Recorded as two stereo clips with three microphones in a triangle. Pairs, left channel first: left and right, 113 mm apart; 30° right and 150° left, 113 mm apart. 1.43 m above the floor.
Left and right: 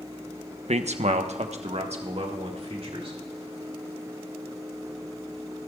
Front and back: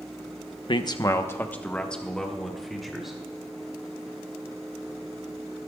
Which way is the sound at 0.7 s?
70° right.